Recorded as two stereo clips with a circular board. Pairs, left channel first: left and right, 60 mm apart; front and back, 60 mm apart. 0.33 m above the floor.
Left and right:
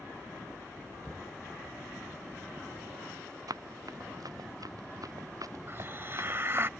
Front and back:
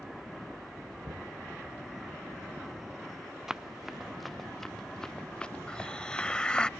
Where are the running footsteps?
95° right; by 6.7 s 55° right.